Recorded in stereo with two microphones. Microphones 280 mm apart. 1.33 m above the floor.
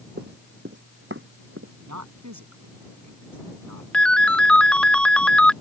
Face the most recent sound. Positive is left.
turn(degrees=5)  # may be behind; listen again after turning